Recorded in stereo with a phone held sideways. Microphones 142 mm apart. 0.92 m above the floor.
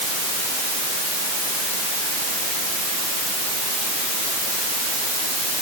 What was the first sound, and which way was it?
Only background noise.